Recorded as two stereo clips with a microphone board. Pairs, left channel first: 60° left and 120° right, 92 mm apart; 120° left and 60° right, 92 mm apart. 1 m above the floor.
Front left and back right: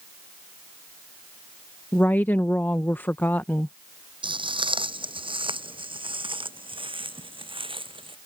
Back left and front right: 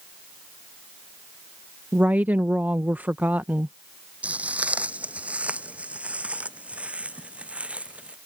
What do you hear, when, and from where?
1.9 s a woman speaking: straight ahead
4.2 s footsteps: 135° right